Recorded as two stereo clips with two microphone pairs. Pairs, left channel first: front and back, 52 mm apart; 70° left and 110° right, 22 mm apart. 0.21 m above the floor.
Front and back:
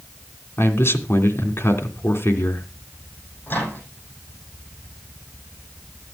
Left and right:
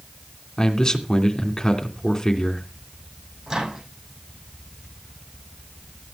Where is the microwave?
45° right, 9 m.